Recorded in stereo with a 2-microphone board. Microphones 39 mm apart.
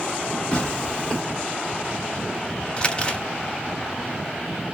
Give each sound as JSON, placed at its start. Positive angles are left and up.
{"t": 0.5, "sound": "tearing paper", "side_deg": 25, "distance_m": 1.8}
{"t": 2.8, "sound": "crumpling", "side_deg": 25, "distance_m": 0.6}